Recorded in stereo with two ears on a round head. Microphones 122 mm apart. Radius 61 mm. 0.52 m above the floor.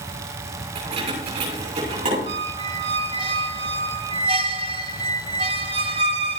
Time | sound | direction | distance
0.8 | keys jangling | 40° right (ahead or behind) | 8 m
2.3 | a squeak | 45° right (ahead or behind) | 0.6 m